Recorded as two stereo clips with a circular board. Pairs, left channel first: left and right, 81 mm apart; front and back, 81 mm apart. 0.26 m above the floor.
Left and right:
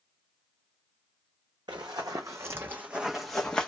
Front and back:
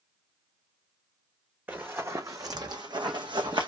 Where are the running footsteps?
115° right, 0.8 m; by 3.7 s 165° left, 0.9 m.